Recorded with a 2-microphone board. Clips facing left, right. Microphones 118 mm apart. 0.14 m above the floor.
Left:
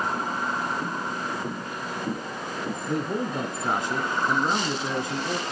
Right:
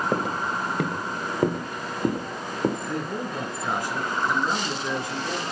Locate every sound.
0.1 s footsteps: 70° right (ahead or behind), 1.7 m
2.9 s a man speaking: 25° left (ahead or behind), 1.2 m